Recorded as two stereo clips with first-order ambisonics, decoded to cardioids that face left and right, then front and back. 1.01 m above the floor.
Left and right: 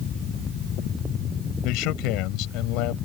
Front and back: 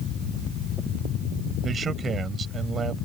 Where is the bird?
No bird in this recording.